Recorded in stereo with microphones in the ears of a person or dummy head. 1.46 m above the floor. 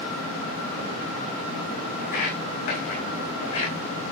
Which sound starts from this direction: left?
Footsteps, at 2.0 s.